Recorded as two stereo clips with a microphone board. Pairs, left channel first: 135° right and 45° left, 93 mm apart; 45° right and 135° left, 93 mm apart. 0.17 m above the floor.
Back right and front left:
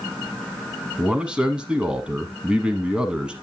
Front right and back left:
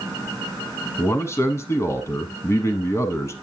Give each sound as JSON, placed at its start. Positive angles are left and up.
{"t": 1.0, "sound": "a man speaking", "azimuth_deg": -25, "distance_m": 1.1}